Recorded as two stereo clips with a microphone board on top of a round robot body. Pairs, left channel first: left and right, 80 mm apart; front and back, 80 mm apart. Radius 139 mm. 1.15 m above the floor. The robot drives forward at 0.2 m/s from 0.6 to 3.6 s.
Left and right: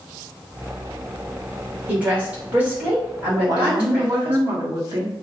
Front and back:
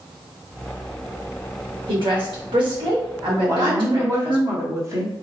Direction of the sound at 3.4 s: 125° right.